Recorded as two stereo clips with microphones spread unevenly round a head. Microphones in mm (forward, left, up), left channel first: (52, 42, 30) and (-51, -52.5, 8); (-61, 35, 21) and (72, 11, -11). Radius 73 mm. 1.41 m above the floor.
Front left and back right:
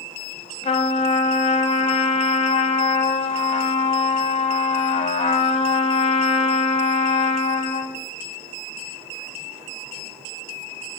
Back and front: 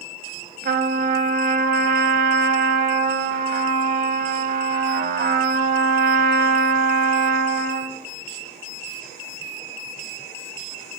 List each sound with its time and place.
0.6 s a trumpet: 10° right, 0.6 m